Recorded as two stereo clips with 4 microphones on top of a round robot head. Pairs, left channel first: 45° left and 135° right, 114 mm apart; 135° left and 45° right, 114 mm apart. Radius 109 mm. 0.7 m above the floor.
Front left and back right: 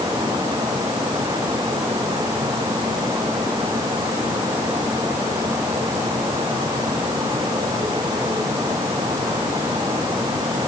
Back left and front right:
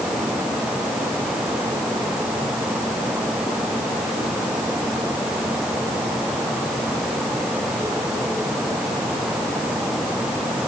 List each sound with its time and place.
Only background noise.